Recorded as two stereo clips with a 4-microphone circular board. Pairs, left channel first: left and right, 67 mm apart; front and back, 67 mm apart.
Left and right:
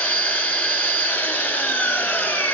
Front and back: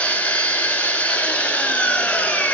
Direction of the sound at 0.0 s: 50° left.